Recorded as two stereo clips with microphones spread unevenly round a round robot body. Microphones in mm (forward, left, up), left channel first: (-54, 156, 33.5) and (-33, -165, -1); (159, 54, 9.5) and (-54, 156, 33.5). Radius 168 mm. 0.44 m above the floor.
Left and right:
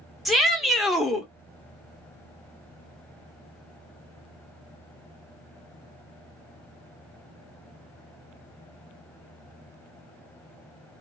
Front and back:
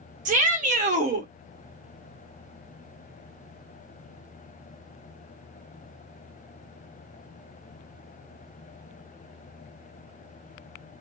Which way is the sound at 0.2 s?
165° right.